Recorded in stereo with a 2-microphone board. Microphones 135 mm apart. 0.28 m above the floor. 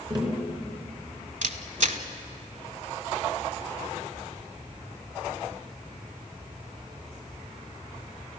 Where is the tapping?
35° right (ahead or behind), 3.5 m.